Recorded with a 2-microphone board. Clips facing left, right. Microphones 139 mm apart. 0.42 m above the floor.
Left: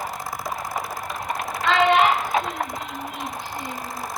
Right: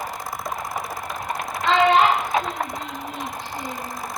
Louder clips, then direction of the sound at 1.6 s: Right 1 dB; 35° right (ahead or behind).